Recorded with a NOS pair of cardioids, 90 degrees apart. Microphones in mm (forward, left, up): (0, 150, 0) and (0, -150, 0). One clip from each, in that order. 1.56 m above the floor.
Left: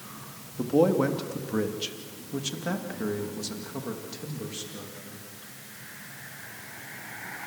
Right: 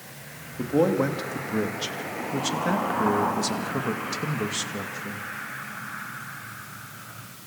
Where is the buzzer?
I don't hear a buzzer.